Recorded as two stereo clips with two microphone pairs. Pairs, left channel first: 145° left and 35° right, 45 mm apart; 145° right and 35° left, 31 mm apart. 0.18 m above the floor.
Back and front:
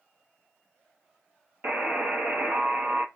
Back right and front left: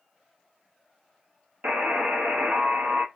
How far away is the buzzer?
About 0.7 m.